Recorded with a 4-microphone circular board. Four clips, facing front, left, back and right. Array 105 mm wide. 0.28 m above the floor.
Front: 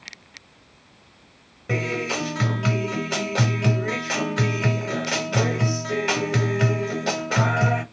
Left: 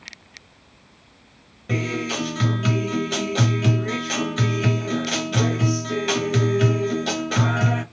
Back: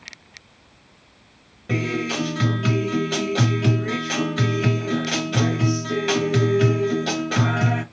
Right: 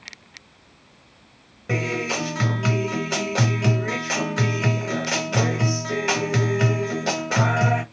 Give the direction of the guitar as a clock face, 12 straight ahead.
2 o'clock.